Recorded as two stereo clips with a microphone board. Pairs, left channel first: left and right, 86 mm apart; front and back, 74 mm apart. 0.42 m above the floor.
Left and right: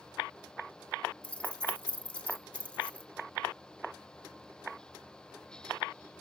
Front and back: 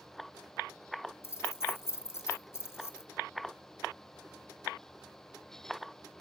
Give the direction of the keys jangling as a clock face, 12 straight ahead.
11 o'clock.